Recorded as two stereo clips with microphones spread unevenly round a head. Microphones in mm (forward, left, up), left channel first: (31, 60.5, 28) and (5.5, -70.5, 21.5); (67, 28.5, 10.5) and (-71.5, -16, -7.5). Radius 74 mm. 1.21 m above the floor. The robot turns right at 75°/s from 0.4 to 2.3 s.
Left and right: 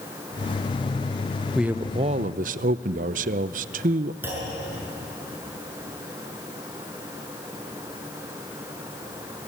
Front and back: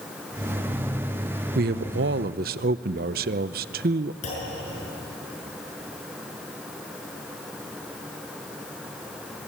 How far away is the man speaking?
About 0.6 m.